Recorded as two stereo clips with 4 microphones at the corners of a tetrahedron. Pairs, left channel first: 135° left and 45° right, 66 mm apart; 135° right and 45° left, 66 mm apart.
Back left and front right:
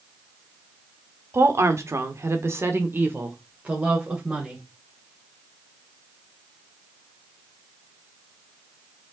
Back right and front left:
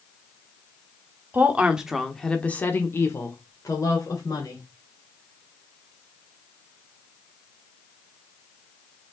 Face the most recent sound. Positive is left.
turn(degrees=-115)